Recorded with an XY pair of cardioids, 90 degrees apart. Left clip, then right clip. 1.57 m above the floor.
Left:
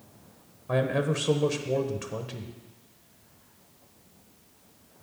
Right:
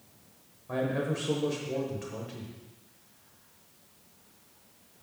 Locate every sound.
0.7 s a man speaking: 60° left, 0.9 m